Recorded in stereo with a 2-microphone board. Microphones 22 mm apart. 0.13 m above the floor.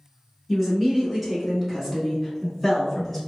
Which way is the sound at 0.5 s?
10° right (ahead or behind).